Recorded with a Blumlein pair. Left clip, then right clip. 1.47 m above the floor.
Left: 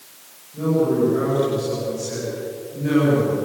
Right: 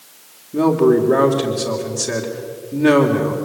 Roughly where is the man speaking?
Ahead right.